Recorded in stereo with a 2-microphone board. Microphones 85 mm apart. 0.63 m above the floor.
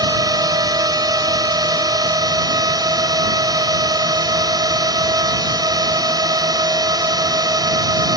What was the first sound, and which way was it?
A drone, 50° right (ahead or behind).